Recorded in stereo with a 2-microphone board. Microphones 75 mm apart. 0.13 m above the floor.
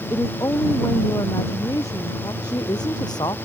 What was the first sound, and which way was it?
A woman speaking, 50° left (ahead or behind).